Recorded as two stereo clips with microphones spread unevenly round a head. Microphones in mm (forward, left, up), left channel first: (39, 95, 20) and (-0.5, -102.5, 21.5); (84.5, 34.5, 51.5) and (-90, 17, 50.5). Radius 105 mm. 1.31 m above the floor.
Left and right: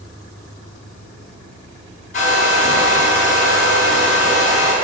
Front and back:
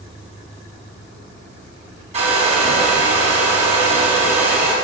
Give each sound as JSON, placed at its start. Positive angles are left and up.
{"t": 2.1, "sound": "a hair dryer", "azimuth_deg": 135, "distance_m": 4.5}